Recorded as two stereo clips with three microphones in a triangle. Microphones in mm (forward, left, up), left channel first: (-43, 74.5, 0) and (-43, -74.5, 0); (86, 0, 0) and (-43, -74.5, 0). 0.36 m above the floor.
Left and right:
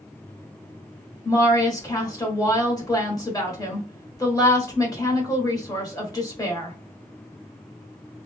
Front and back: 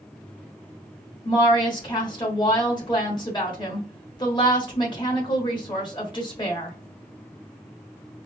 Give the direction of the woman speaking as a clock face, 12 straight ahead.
10 o'clock.